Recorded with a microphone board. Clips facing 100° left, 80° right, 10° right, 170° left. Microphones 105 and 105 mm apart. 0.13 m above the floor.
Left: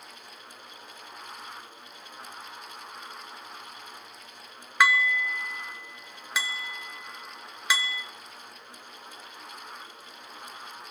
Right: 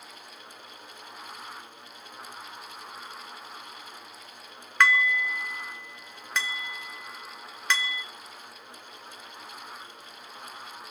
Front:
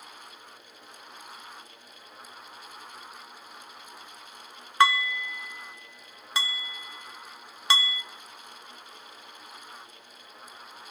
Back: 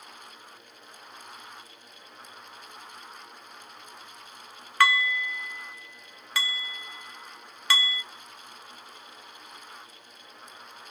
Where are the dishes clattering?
25° left, 1.0 m.